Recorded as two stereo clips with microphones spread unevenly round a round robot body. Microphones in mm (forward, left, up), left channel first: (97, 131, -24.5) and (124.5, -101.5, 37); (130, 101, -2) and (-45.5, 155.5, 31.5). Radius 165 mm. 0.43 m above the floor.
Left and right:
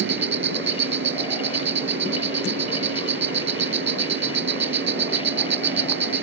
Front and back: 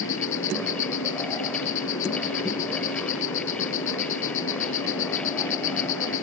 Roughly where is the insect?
Ahead right.